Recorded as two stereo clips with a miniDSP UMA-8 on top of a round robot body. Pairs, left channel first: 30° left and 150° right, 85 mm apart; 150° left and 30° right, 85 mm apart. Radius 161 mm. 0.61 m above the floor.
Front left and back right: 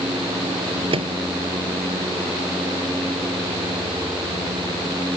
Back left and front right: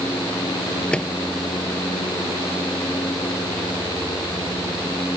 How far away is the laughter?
I don't hear laughter.